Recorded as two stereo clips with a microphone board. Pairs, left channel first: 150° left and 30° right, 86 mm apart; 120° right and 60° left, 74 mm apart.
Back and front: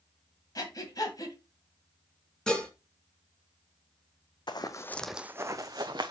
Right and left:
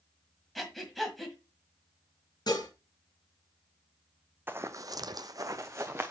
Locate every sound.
0.6 s breathing: 155° left, 1.6 m
2.5 s dishes clattering: 130° right, 2 m
4.5 s running footsteps: 120° left, 0.7 m; by 6.1 s straight ahead, 1.1 m